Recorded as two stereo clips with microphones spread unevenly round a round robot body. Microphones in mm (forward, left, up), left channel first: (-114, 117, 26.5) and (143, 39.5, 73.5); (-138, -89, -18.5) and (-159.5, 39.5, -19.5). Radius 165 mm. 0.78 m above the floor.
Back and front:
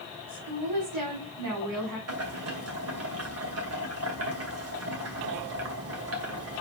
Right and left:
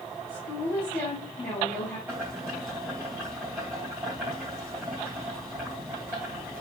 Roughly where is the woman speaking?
Ahead.